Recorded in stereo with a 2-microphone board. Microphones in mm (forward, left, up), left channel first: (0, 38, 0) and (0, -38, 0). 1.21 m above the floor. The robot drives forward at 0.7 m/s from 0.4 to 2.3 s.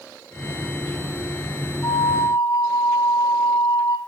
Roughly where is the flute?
Left.